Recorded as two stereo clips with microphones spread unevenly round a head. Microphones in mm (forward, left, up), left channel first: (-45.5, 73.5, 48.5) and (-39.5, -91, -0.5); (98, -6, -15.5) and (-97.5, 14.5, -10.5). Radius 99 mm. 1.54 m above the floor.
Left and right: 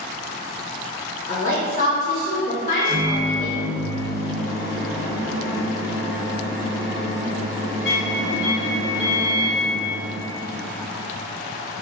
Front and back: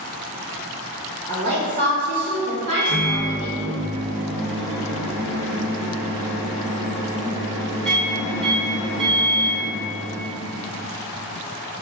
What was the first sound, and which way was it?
A woman speaking, 130° left.